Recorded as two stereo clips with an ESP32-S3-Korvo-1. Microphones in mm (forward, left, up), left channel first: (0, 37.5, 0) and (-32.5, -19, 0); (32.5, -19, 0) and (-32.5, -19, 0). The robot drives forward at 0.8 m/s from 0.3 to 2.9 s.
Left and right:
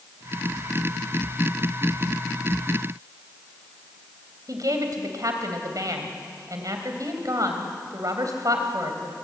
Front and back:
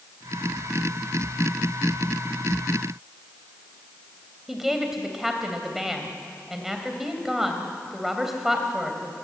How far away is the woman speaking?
About 3 m.